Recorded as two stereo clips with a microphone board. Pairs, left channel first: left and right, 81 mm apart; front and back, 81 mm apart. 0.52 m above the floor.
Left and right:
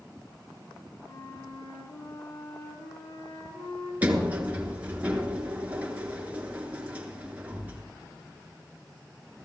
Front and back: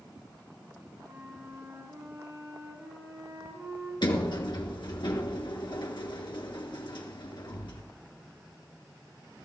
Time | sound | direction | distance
1.0 | a flute | 120° left | 10 m
4.0 | a sliding door | 20° right | 2.5 m